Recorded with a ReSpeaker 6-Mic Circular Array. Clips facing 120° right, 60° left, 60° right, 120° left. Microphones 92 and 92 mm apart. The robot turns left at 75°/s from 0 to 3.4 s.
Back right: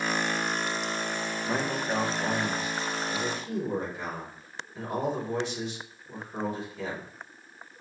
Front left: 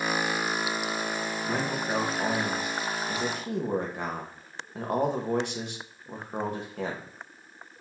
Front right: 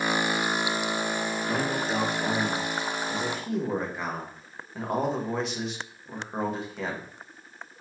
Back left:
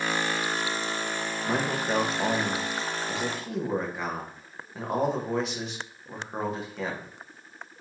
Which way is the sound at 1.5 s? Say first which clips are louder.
Back right 1 dB, back left 2 dB; 175° left.